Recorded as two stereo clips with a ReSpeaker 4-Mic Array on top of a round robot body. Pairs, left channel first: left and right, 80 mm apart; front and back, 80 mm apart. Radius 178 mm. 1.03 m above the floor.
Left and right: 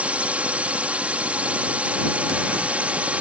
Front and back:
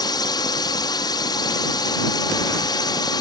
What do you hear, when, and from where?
0.0 s a drone: 20° right